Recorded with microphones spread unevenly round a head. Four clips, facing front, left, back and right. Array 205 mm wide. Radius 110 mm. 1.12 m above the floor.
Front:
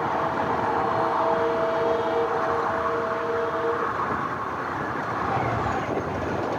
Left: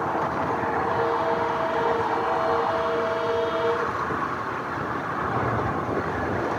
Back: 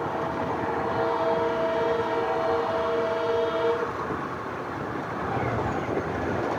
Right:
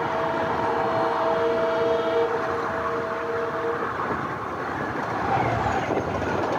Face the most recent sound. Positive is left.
No sound to turn to.